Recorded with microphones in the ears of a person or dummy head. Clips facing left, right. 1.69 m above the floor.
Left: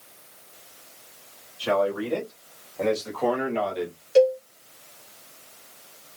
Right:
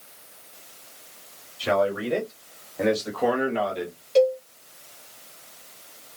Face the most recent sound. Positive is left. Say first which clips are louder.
# left 1 dB
turn(degrees=10)  # may be behind; listen again after turning